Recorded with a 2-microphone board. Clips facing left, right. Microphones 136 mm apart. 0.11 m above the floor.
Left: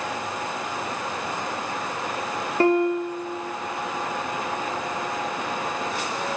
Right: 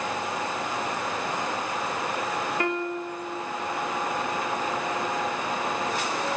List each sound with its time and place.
2.6 s a piano: 35° left (ahead or behind), 1.9 m